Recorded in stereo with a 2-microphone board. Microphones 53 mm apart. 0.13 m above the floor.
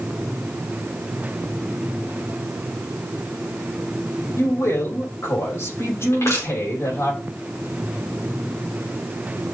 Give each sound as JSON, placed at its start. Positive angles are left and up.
{"t": 4.4, "sound": "a man speaking", "side_deg": 55, "distance_m": 6.0}
{"t": 6.1, "sound": "crushing", "side_deg": 65, "distance_m": 6.0}